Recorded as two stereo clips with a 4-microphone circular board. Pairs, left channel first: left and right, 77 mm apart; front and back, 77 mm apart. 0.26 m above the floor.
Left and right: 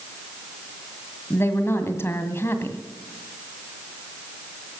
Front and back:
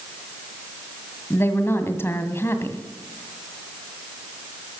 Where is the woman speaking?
45° left, 1.7 m.